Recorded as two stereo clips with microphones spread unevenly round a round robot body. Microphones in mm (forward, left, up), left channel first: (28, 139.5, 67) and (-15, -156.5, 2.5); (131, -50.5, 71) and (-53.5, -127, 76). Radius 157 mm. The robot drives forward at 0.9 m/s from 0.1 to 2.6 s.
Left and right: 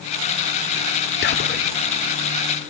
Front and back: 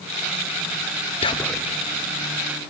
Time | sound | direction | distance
1.2 | whispering | 35° left | 0.6 m